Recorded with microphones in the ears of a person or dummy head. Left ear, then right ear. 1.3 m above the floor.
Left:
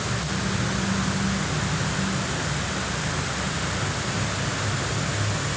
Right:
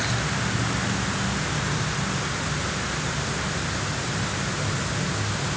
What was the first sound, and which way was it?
Only background noise.